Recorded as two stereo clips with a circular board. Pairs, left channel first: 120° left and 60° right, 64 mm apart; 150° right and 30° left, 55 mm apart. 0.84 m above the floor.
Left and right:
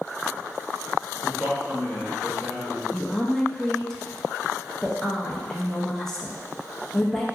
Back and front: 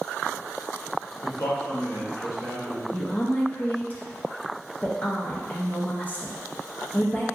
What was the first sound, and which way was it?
A man speaking, 165° right.